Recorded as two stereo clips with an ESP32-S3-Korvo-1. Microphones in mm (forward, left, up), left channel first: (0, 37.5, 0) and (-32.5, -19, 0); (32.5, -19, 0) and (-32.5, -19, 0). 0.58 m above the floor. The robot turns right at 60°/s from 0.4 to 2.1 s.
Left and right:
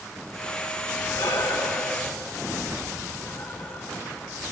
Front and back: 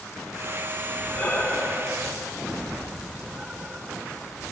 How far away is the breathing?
About 1.1 m.